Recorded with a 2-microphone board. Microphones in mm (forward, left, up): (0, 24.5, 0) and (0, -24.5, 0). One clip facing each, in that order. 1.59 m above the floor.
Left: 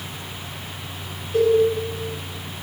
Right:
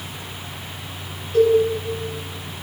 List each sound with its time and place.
1.3 s a cowbell: 45° left (ahead or behind), 1.9 m